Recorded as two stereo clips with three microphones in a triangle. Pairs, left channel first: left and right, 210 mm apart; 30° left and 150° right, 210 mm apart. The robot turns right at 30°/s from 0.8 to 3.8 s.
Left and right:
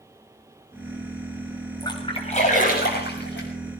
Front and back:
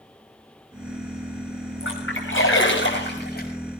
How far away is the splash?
About 6 m.